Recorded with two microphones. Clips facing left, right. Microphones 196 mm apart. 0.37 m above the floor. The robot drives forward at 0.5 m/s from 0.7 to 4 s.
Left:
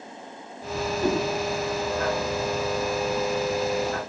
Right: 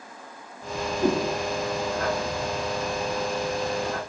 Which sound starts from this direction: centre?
A whoosh, at 1.0 s.